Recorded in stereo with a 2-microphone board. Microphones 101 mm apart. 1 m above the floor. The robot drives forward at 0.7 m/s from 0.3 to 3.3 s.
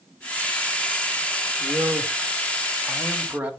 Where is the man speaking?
35° right (ahead or behind), 1.6 m; by 3.5 s 20° right (ahead or behind), 2.5 m.